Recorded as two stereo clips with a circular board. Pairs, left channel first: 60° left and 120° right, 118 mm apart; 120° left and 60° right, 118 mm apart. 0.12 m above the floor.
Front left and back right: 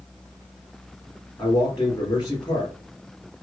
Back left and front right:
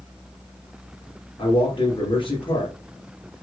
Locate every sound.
1.4 s a man speaking: 100° left, 2.5 m